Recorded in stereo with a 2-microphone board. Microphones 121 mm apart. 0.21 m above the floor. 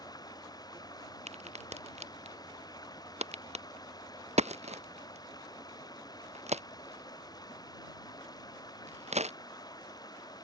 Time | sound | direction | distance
0.0 | running water | 30° left (ahead or behind) | ?
1.3 | a crack | 65° right (ahead or behind) | ?